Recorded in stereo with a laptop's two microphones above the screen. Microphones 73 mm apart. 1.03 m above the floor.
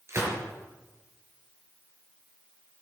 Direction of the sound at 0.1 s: 40° right (ahead or behind).